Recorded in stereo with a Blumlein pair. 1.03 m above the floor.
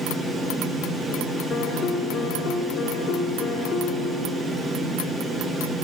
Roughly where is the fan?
Ahead.